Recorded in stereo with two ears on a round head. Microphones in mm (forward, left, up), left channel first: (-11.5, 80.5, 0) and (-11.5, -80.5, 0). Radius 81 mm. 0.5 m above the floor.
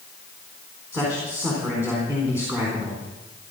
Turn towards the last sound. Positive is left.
turn(degrees=-15)  # may be behind; listen again after turning